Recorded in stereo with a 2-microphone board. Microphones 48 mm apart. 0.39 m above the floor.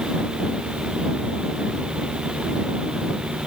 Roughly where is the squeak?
I don't hear a squeak.